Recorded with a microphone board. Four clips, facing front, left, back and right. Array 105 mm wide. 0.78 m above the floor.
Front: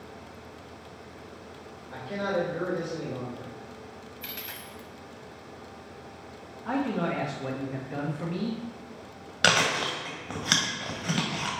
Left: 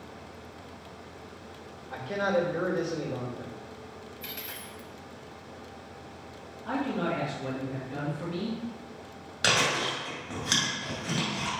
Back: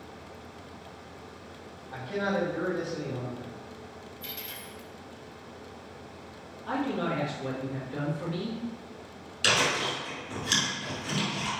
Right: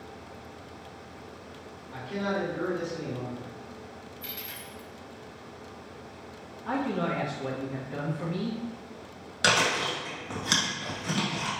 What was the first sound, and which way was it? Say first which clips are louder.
A man speaking: left 4 dB, even; 70° left.